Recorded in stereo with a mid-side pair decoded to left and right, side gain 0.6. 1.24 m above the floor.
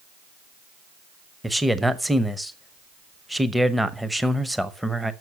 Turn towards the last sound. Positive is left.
turn(degrees=-5)